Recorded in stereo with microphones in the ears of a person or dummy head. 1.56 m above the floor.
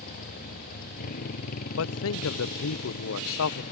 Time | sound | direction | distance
0.0 | a motorcycle | 50° left (ahead or behind) | ?
1.8 | a man speaking | 80° left | ?